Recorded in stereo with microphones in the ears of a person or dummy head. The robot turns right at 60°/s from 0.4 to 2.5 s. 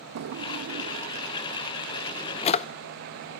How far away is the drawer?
About 0.5 m.